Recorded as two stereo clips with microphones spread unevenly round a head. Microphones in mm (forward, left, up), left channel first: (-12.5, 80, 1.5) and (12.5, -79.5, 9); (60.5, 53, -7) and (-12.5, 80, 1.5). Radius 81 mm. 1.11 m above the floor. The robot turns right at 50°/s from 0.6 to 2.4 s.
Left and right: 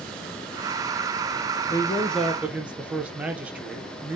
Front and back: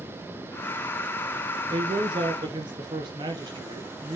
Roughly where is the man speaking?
Behind.